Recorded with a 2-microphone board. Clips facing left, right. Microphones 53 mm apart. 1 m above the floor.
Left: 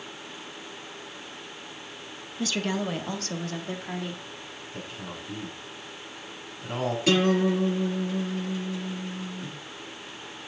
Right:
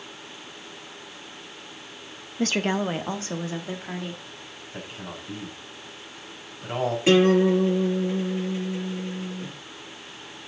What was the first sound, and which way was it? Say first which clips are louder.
A woman speaking: right 4 dB; 50° right (ahead or behind).